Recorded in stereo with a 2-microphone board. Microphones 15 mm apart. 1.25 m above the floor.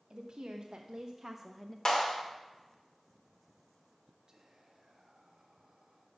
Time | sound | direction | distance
0.1 | a woman speaking | 75° right (ahead or behind) | 1.7 m
1.9 | a clap | 45° left (ahead or behind) | 2.5 m
4.3 | whispering | 40° right (ahead or behind) | 1.8 m